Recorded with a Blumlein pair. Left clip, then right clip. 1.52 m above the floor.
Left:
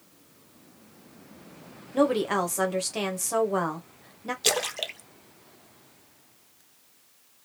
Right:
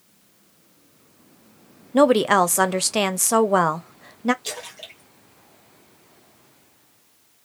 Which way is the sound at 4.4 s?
40° left.